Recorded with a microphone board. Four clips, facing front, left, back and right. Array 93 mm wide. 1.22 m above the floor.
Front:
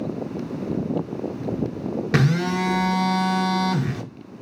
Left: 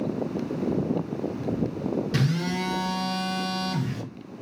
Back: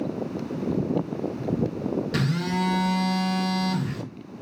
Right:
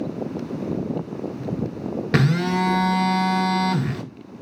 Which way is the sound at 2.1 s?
50° right.